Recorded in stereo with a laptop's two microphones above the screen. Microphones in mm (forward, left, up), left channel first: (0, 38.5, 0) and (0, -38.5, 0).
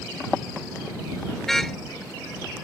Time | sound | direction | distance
1.5 | a car horn | 5° left (ahead or behind) | ?